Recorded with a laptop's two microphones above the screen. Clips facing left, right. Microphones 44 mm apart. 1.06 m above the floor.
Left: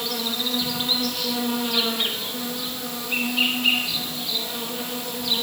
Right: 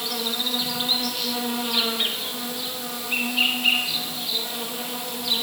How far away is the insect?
About 0.9 m.